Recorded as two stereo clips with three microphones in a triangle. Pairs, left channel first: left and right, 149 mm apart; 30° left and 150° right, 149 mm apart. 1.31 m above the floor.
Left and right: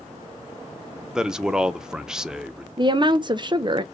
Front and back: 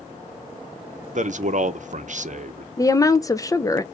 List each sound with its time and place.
1.1 s a man speaking: 175° right, 0.6 m
2.8 s a woman speaking: 35° right, 0.5 m